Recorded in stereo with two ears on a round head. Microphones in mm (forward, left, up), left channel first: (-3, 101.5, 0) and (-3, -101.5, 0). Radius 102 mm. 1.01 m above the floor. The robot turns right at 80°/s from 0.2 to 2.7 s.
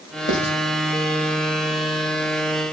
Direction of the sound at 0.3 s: 40° left (ahead or behind).